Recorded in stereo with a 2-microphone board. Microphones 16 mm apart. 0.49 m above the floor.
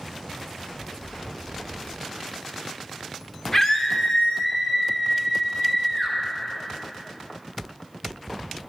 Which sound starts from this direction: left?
A scream, at 3.5 s.